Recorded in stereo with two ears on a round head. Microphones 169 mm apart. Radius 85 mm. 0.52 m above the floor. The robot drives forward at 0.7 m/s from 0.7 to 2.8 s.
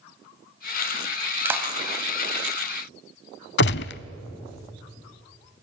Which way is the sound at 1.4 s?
10° right (ahead or behind).